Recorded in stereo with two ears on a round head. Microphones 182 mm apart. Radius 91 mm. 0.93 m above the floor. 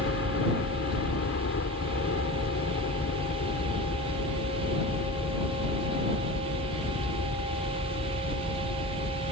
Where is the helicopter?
60° left (ahead or behind); by 9.3 s 55° left (ahead or behind).